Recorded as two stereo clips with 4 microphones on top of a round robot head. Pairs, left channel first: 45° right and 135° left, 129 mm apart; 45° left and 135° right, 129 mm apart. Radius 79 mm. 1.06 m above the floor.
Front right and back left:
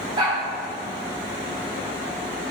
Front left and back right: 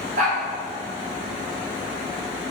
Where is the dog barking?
170° right, 3 m.